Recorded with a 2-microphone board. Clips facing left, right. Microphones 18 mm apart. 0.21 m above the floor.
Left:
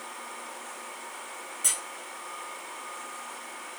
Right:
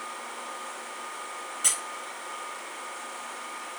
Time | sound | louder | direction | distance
1.6 | a squeak | right 2 dB | 20° right (ahead or behind) | 1.9 m